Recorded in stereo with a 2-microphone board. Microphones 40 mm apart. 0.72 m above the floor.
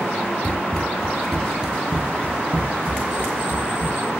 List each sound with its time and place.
0.4 s running footsteps: 25° left (ahead or behind), 0.8 m; by 4.0 s 50° right (ahead or behind), 1.6 m